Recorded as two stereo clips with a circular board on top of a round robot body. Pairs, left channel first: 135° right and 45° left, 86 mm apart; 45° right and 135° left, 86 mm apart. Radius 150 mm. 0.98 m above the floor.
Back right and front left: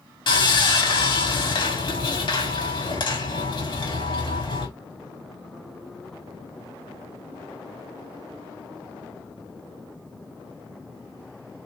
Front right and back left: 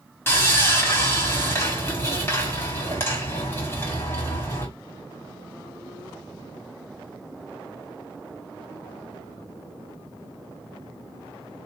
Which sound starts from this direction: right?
Sawing, at 0.3 s.